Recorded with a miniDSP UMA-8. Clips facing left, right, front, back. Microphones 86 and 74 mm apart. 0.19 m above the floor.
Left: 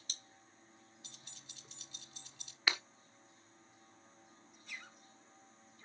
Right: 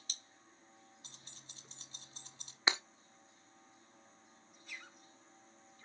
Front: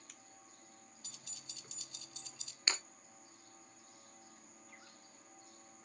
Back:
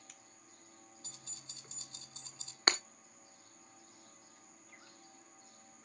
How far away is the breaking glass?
About 0.7 m.